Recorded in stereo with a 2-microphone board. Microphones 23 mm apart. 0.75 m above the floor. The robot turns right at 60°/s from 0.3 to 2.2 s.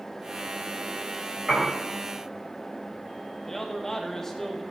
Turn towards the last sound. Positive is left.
turn(degrees=15)  # may be behind; listen again after turning